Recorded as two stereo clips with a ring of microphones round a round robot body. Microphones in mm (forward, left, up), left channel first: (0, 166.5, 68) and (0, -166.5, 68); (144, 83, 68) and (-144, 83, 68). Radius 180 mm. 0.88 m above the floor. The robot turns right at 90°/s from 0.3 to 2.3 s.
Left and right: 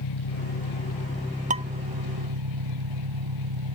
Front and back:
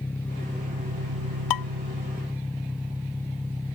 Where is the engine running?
85° left; by 3.8 s 95° right.